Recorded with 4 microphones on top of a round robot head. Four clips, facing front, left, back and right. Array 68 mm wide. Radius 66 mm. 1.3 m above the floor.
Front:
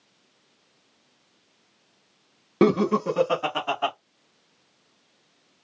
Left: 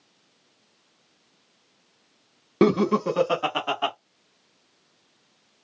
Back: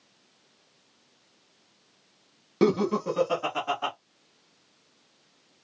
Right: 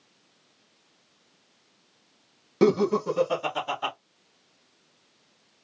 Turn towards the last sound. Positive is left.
turn(degrees=75)